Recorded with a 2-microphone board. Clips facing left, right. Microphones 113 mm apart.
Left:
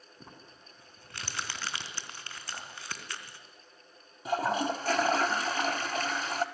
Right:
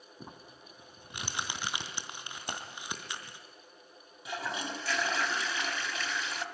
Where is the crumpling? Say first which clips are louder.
Right 3 dB; 20° right (ahead or behind), 3 m.